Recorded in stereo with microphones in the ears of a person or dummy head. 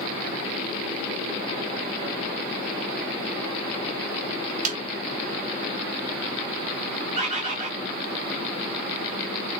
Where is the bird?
40° right (ahead or behind), 0.8 m.